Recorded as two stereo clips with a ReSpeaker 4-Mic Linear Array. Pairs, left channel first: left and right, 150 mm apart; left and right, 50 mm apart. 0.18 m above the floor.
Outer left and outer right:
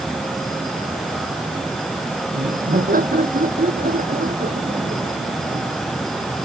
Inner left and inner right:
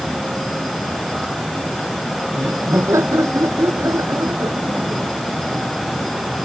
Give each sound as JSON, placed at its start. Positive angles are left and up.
{"t": 2.3, "sound": "laughter", "side_deg": -75}